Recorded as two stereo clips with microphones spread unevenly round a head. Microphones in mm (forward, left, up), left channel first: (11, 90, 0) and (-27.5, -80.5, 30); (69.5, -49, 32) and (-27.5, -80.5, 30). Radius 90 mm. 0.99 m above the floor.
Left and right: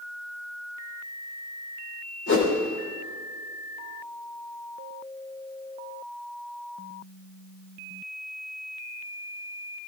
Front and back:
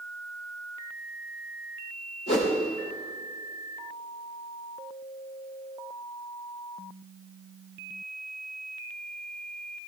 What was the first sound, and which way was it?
A whoosh, 50° left.